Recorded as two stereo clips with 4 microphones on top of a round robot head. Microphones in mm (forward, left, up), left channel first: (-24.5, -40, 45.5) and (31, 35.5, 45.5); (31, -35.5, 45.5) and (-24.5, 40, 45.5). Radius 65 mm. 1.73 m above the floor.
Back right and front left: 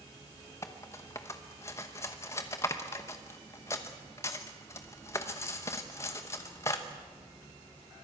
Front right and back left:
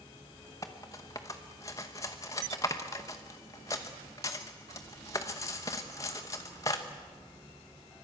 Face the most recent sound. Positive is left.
turn(degrees=-90)